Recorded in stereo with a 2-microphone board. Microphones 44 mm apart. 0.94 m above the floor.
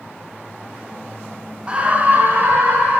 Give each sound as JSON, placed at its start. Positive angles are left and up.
{"t": 1.7, "sound": "a scream", "side_deg": -25, "distance_m": 0.6}